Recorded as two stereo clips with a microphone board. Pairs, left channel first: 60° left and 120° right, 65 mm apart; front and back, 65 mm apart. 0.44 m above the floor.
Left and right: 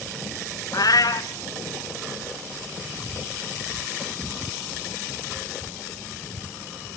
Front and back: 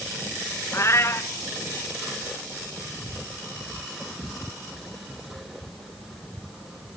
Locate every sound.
0.7 s a cat meowing: 45° left, 1.1 m